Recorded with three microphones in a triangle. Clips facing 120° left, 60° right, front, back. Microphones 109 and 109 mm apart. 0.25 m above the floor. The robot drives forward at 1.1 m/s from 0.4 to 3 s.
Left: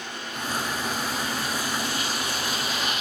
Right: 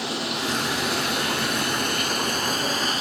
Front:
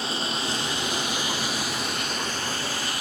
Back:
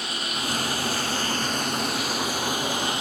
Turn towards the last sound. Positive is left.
turn(degrees=-110)